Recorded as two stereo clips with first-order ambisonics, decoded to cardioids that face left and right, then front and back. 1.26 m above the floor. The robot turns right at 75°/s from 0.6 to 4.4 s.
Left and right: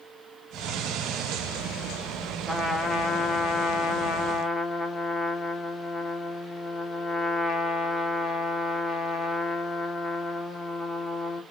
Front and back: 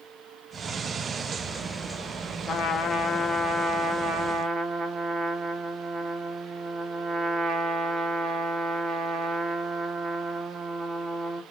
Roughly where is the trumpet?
Ahead.